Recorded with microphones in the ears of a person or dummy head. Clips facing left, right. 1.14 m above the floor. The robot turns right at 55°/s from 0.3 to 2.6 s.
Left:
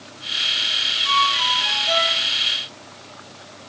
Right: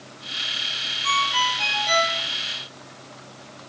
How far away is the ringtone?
About 8.5 m.